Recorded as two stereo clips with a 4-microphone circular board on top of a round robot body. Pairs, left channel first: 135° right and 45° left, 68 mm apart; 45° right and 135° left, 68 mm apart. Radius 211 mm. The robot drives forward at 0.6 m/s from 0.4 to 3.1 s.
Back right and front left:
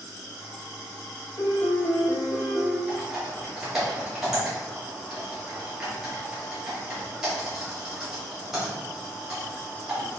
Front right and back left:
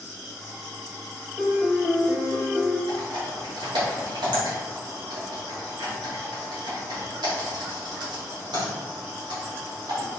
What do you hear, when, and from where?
1.4 s a piano: 150° right, 1.3 m; by 2.8 s 165° right, 1.9 m
2.9 s typing on a keyboard: 125° left, 1.6 m; by 10.2 s 130° left, 1.7 m